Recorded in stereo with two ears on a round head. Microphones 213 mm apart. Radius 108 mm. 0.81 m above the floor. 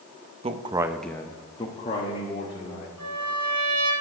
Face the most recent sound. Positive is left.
turn(degrees=-25)  # may be behind; listen again after turning